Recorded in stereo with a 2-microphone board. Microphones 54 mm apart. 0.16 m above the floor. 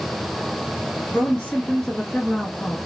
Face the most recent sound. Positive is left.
turn(degrees=0)  # may be behind; listen again after turning